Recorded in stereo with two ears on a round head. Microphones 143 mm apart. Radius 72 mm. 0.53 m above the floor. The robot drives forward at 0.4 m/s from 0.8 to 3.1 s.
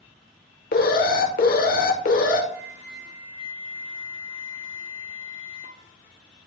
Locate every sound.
0.7 s an alarm: 60° left (ahead or behind), 1.3 m; by 2.4 s 55° left (ahead or behind), 1.3 m
2.5 s a flute: 20° right (ahead or behind), 3 m